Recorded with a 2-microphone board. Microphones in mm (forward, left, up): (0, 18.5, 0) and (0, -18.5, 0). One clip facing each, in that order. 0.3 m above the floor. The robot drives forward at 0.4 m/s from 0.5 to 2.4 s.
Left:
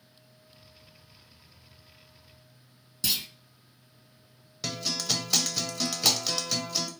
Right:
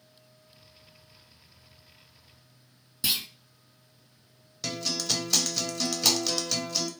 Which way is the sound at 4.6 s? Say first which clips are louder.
Even; 10° left (ahead or behind).